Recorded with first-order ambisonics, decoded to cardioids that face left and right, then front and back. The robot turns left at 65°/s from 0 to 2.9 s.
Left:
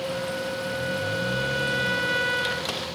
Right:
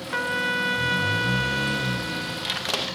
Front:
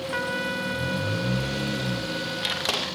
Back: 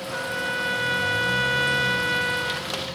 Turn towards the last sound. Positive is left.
turn(degrees=115)